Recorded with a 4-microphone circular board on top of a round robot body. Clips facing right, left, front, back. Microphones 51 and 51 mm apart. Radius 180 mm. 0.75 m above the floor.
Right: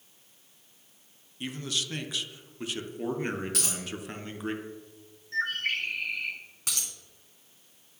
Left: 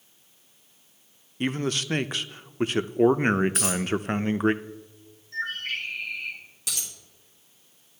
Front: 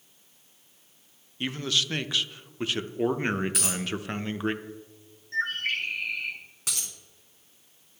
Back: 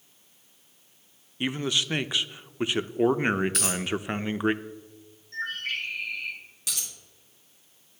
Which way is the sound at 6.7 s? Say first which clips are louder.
Even, even; 45° right.